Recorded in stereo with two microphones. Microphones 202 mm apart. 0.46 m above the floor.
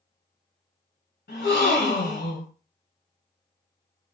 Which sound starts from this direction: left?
A gasp, at 1.3 s.